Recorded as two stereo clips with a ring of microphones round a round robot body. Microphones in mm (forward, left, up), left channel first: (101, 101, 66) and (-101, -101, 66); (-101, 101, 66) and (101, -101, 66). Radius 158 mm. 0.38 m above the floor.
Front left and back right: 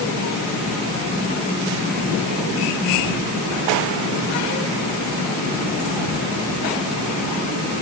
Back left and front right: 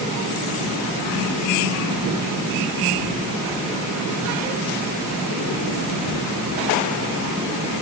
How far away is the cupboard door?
I don't hear a cupboard door.